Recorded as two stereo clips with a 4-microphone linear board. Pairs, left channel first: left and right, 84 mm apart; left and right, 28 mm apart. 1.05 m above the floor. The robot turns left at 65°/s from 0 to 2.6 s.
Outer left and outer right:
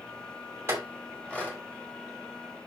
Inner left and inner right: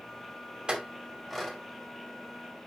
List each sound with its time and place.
0.7 s a clink: 30° right (ahead or behind), 2.5 m; by 1.6 s 30° left (ahead or behind), 2.5 m